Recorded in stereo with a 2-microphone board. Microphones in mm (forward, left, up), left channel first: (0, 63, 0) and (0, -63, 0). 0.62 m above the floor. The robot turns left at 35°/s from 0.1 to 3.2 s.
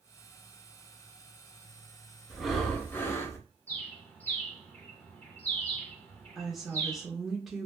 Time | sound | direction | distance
2.3 | breathing | 175° right | 0.6 m
3.7 | a bird | 15° left (ahead or behind) | 1.0 m
6.3 | a woman speaking | centre (ahead or behind) | 0.8 m